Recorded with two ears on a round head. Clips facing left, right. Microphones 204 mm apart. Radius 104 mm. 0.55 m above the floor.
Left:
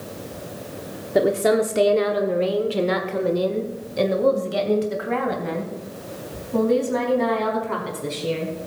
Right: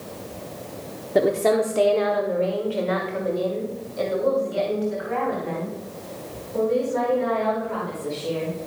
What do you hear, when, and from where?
1.1 s a woman speaking: centre (ahead or behind), 0.9 m; by 8.5 s 75° left (ahead or behind), 5 m